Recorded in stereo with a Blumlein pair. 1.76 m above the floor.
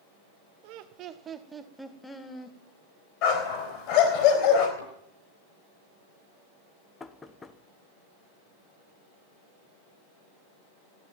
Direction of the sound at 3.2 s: 45° left.